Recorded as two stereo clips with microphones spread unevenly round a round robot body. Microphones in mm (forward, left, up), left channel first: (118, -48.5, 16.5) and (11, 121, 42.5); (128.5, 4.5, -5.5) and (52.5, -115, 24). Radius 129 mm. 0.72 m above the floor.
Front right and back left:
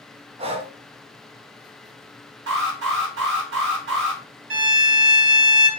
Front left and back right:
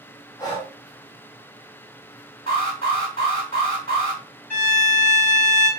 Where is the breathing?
70° left, 0.5 m.